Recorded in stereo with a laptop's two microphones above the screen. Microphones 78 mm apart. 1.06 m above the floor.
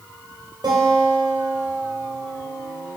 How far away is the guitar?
About 2.5 m.